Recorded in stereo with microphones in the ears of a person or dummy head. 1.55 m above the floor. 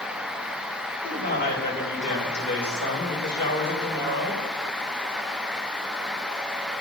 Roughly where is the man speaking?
Left.